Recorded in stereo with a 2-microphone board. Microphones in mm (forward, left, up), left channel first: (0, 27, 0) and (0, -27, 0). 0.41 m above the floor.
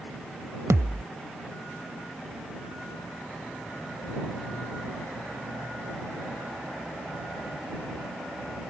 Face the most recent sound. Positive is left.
turn(degrees=-70)  # may be behind; listen again after turning